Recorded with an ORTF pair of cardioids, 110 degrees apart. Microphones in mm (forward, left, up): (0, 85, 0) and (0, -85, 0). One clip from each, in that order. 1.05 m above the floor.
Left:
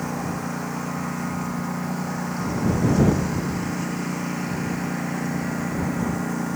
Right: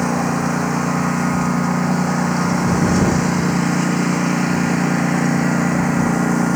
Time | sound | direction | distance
0.0 | a lawn mower | 55° right | ?